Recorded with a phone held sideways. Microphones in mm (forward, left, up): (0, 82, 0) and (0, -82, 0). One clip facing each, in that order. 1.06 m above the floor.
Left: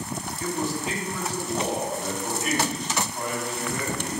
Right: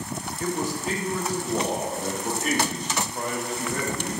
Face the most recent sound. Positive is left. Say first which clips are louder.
# right 1 dB
turn(degrees=-45)  # may be behind; listen again after turning